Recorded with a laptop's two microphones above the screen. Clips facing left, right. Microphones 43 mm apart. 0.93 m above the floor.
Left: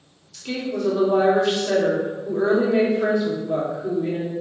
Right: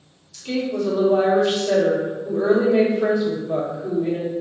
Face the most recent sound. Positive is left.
turn(degrees=15)  # may be behind; listen again after turning